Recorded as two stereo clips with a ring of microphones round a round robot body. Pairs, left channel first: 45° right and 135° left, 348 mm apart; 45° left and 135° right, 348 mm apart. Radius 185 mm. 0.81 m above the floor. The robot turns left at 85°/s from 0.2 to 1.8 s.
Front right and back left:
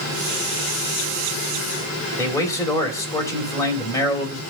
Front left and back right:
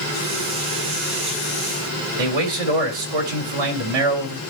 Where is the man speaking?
125° right, 3.5 m.